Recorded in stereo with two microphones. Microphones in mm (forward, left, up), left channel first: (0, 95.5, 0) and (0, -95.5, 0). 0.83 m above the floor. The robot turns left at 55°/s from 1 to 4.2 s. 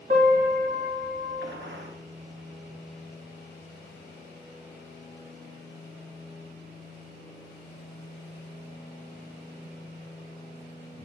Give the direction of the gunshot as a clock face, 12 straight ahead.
2 o'clock.